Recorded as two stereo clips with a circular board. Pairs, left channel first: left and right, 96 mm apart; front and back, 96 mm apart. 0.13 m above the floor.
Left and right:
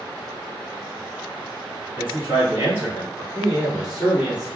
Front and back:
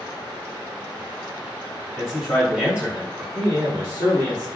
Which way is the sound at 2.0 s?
80° right.